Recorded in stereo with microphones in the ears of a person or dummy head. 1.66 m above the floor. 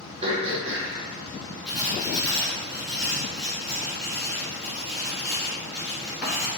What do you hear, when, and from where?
0.2 s throat clearing: 35° right (ahead or behind), 1.0 m
1.7 s writing: centre (ahead or behind), 1.7 m